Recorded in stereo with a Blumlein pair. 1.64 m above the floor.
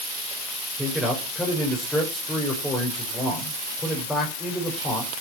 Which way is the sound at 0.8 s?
5° left.